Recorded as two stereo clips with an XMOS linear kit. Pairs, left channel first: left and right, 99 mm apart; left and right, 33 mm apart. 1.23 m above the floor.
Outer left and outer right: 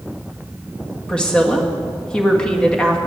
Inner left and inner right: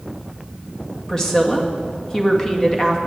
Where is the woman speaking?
10° left (ahead or behind), 1.8 m.